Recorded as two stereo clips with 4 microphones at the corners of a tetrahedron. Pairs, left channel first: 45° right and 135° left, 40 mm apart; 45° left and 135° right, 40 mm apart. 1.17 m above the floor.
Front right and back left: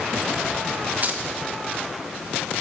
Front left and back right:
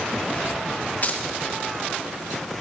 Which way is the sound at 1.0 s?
90° left.